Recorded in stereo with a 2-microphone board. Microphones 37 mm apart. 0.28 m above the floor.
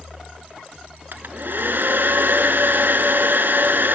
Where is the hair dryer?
65° right (ahead or behind), 1.1 m.